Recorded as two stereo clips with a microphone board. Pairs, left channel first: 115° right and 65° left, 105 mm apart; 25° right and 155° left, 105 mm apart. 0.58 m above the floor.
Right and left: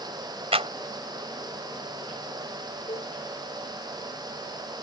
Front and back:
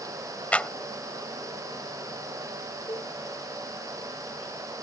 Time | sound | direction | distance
0.5 | a clap | 55° left | ?
2.9 | a cowbell | 80° right | ?